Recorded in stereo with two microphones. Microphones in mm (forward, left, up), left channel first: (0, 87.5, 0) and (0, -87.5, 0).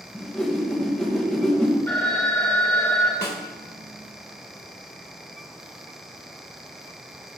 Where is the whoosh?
5° left (ahead or behind), 2 m.